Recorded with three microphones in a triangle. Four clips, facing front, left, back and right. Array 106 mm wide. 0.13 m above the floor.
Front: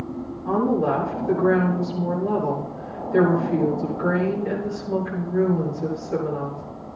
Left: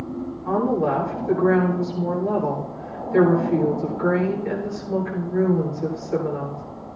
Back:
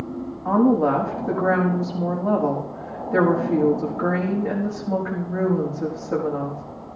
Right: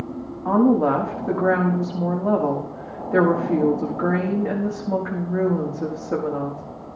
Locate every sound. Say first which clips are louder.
0.5 s a woman speaking: right 4 dB, back 3 dB; 120° right, 5.5 m